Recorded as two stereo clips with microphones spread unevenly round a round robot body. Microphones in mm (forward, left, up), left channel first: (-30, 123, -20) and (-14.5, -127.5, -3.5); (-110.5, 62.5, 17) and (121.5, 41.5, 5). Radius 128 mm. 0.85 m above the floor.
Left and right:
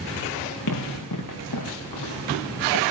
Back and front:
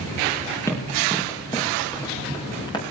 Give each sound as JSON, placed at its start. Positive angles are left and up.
{"t": 0.7, "sound": "running footsteps", "azimuth_deg": 95, "distance_m": 5.5}